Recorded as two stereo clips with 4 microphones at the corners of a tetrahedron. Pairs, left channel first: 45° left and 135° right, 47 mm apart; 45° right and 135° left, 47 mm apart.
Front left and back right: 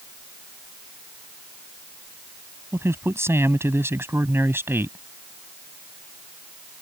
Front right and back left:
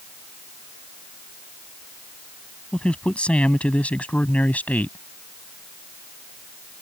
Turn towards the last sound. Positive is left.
turn(degrees=-100)